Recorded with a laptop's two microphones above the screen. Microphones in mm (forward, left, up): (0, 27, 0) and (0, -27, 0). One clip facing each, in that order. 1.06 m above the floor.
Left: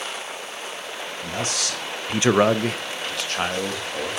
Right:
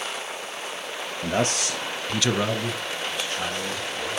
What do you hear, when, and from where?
1.2 s a man speaking: 45° right (ahead or behind), 1.0 m; by 4.2 s 70° left (ahead or behind), 2.5 m